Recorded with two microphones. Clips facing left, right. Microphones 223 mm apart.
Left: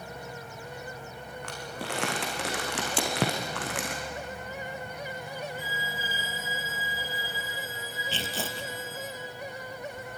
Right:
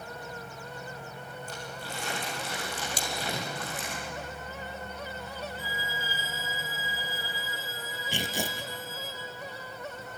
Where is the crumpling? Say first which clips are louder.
Left 7 dB; 85° left, 5 m.